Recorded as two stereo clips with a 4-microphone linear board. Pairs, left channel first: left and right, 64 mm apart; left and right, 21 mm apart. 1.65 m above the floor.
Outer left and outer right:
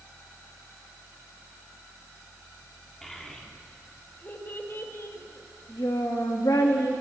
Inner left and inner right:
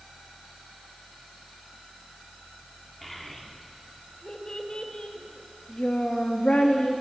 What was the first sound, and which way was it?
A child speaking, 5° left (ahead or behind).